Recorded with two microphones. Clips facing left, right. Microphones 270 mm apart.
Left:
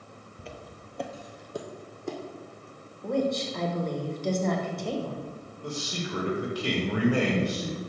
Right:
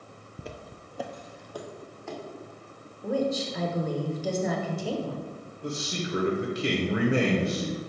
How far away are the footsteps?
About 0.6 m.